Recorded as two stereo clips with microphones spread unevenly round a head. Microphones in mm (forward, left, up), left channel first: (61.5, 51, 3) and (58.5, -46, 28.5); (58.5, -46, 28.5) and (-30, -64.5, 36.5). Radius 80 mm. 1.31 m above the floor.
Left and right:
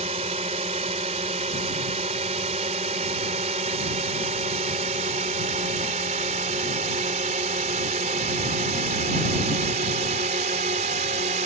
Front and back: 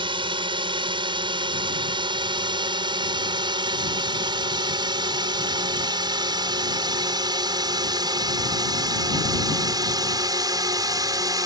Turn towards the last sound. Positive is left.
turn(degrees=-125)